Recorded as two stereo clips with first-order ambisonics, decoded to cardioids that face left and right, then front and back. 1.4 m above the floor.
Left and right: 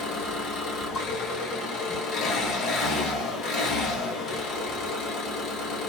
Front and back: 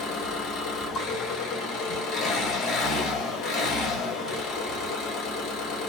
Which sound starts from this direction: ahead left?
An engine running, at 0.0 s.